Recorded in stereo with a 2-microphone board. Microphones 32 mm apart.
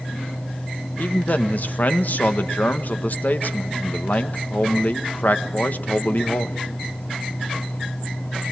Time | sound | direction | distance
1.0 | a man speaking | 60° left (ahead or behind) | 1.3 m